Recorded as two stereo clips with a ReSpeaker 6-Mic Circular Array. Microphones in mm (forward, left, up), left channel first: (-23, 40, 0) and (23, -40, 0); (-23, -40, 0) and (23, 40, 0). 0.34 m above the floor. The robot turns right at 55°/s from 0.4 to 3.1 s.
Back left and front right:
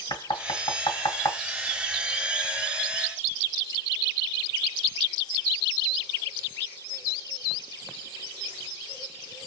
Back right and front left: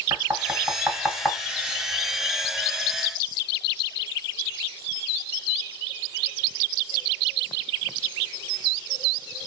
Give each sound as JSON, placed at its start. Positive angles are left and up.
{"t": 0.1, "sound": "knocking", "azimuth_deg": 110, "distance_m": 1.8}